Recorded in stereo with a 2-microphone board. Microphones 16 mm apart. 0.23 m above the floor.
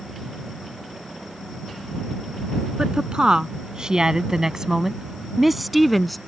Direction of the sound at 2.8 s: 65° right (ahead or behind).